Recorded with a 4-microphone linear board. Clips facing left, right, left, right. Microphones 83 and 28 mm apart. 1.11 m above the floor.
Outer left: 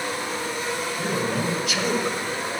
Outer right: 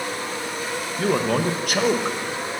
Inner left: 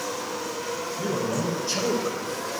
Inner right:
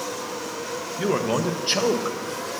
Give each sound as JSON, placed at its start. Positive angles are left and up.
{"t": 1.0, "sound": "a man speaking", "side_deg": -80, "distance_m": 0.8}